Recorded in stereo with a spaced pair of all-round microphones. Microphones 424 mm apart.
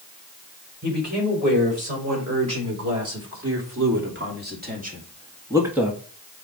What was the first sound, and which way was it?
A man speaking, 40° right (ahead or behind).